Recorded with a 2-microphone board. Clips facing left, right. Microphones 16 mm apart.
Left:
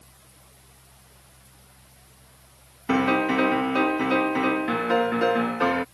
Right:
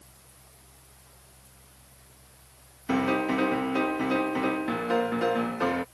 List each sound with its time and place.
2.9 s a piano: 15° left (ahead or behind)